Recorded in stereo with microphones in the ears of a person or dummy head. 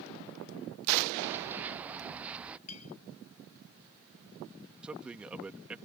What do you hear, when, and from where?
1.2 s running footsteps: 10° right (ahead or behind); by 2.6 s 5° right (ahead or behind)
2.7 s a clink: 90° left
4.8 s a man speaking: 5° right (ahead or behind)